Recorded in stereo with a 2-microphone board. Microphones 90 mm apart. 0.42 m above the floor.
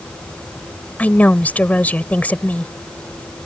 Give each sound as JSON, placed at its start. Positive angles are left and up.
{"t": 1.0, "sound": "a woman speaking", "side_deg": 20}